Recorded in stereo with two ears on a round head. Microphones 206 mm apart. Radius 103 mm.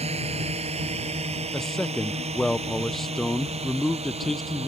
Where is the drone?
30° right (ahead or behind).